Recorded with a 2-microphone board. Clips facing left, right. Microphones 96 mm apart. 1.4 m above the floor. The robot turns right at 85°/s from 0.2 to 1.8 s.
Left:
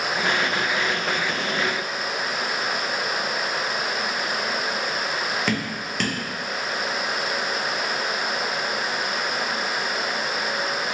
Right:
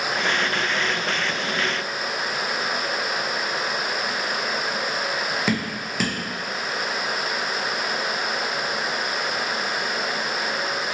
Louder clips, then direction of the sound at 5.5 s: Right 1 dB; 5° right (ahead or behind).